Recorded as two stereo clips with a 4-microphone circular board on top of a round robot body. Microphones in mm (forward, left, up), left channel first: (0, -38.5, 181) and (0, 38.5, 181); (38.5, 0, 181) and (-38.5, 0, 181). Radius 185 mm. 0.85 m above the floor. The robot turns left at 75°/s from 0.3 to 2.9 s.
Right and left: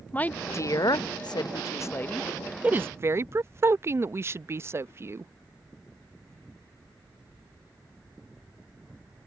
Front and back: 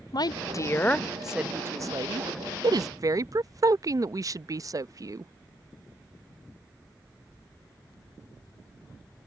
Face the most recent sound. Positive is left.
turn(degrees=145)